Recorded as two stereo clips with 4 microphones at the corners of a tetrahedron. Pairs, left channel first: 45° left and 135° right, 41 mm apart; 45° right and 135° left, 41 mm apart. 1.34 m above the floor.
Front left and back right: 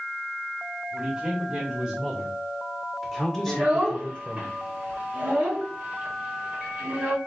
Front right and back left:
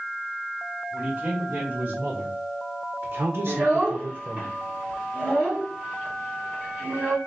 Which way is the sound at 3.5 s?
Straight behind.